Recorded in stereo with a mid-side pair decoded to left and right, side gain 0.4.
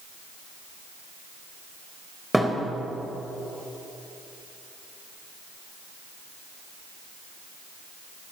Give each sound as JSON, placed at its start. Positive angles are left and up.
{"t": 2.3, "sound": "a thud", "azimuth_deg": -10, "distance_m": 3.5}